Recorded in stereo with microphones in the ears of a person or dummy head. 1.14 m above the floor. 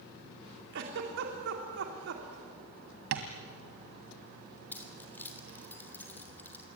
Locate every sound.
0.7 s a giggle: 60° right (ahead or behind), 3 m
3.1 s tapping: 60° right (ahead or behind), 2 m
4.7 s keys jangling: 10° left (ahead or behind), 3.5 m